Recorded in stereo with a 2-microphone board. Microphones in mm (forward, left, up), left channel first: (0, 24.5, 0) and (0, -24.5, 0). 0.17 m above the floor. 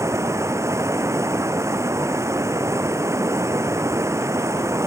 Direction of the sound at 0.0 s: 80° right.